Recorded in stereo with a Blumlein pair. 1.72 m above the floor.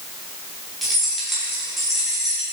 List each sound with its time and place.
0.8 s keys jangling: 5° right, 2.0 m